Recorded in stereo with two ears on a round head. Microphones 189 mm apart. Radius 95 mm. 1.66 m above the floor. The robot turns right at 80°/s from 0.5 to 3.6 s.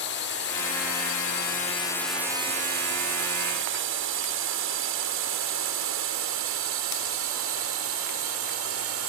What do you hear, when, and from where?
0.0 s a drone: 55° left (ahead or behind); by 9.1 s 75° right (ahead or behind)